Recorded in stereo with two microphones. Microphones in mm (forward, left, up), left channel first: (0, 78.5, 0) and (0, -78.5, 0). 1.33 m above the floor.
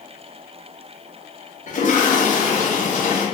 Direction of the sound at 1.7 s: 55° left (ahead or behind).